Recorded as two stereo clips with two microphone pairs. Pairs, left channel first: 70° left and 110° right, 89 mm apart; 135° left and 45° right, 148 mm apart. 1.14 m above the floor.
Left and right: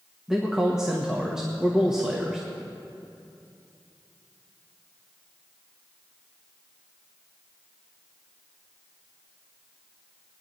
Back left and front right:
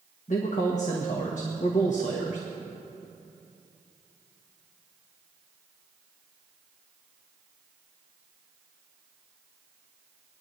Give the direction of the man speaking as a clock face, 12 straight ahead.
6 o'clock.